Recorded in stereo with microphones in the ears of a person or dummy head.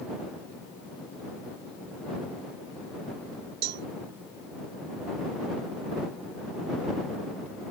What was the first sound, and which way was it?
A cowbell, 60° right (ahead or behind).